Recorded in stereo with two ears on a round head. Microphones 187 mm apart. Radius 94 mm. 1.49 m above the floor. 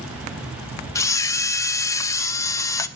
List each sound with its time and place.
0.9 s a camera shutter: 15° left (ahead or behind), 0.8 m